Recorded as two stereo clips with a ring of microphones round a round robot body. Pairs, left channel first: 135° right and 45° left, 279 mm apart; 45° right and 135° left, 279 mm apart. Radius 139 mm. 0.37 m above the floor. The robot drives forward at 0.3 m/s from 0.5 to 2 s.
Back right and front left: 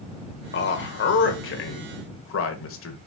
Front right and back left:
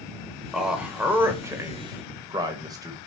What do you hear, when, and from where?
0.5 s a man speaking: 140° right, 1.4 m; by 3.0 s 155° right, 1.6 m